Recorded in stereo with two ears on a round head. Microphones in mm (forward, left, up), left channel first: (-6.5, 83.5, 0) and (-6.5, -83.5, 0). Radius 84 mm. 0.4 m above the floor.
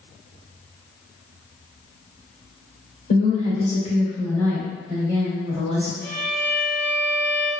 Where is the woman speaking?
50° left (ahead or behind), 1.2 m; by 5.9 s 40° right (ahead or behind), 1.2 m.